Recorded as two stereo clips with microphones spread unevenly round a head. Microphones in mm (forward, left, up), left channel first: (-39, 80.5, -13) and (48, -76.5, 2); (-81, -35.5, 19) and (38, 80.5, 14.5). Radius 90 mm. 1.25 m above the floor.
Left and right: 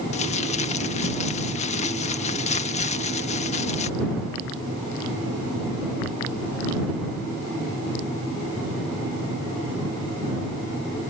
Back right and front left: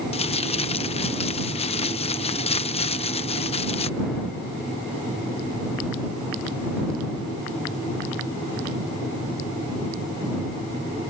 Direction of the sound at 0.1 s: 170° left.